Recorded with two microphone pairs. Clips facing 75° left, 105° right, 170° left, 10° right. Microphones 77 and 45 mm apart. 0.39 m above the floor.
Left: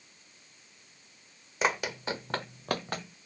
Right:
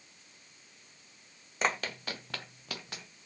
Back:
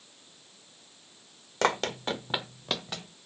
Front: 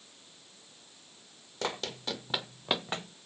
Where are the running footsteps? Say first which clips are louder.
Left 3 dB, back 8 dB; 160° left, 0.8 m; by 3.2 s 35° left, 0.8 m.